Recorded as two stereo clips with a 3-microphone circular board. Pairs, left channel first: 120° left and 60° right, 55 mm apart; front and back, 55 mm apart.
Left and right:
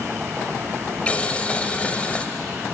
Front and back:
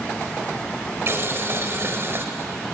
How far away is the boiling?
About 1.0 m.